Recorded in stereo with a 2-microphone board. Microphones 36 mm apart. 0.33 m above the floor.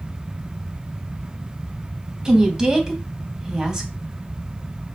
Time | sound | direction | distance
2.2 | a woman speaking | 15° right (ahead or behind) | 2.5 m